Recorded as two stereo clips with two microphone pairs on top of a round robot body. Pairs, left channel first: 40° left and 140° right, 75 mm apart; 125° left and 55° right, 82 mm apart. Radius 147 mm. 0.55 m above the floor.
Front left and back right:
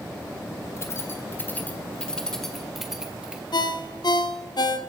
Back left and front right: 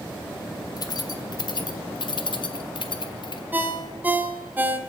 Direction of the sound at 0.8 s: 90° left.